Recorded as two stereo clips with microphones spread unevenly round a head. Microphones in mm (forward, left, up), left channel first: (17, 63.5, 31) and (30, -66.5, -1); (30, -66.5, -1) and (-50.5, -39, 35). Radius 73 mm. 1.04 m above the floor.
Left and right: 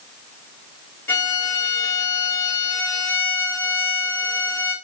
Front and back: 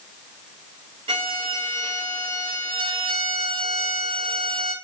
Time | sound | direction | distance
1.1 | a violin | 175° left | 1.6 m